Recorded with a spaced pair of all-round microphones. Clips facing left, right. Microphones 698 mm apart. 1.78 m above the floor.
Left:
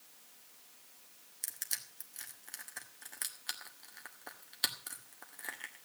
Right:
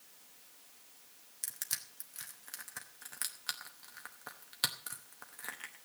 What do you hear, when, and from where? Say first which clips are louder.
1.4 s crushing: even; 40° right (ahead or behind), 1.5 m